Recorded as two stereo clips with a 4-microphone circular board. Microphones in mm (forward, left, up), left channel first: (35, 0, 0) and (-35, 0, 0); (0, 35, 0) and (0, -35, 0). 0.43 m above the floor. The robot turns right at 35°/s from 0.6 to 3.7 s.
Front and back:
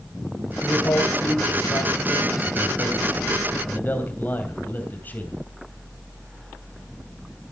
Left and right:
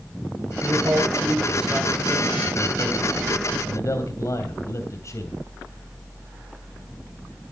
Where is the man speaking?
50° right, 3 m; by 5.3 s 60° left, 3 m.